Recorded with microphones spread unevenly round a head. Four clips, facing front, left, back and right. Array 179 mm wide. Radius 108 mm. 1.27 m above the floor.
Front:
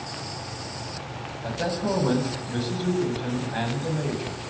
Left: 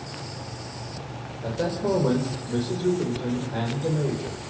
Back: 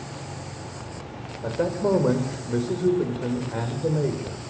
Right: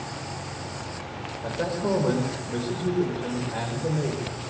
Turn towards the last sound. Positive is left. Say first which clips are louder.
# left 1 dB, back 4 dB
turn(degrees=165)